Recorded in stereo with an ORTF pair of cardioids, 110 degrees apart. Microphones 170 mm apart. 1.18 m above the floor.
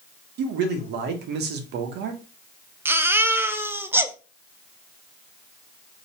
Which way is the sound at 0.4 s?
70° right.